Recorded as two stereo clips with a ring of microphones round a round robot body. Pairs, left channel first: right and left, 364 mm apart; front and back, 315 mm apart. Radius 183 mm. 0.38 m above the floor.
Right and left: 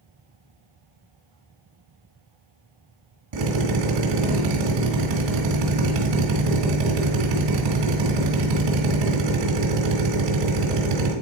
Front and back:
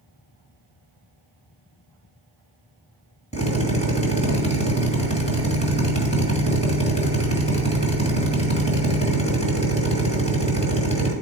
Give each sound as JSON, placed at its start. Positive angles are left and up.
{"t": 3.3, "sound": "a drill", "azimuth_deg": 70, "distance_m": 3.5}